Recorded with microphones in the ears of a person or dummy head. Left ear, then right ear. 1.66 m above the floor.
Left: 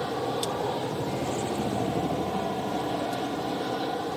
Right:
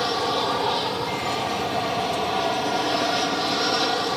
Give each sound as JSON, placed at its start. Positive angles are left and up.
{"t": 0.0, "sound": "an aircraft", "side_deg": -45}